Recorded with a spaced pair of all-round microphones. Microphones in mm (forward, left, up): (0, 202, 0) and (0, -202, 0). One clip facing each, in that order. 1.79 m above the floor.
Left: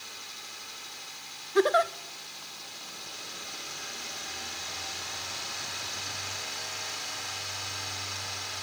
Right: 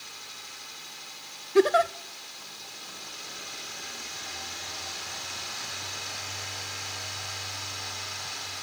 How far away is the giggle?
About 0.5 m.